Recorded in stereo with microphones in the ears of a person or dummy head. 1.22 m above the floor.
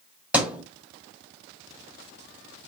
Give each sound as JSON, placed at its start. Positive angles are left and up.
{"t": 0.3, "sound": "a thud", "side_deg": -5, "distance_m": 1.1}